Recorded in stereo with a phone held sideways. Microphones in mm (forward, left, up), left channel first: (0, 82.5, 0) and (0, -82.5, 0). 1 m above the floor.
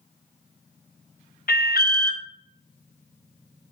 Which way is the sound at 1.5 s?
70° left (ahead or behind).